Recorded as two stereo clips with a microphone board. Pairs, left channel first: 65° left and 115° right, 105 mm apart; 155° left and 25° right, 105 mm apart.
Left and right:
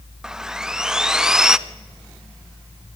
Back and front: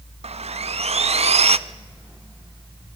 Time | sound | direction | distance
0.2 | sawing | 30° right | 0.7 m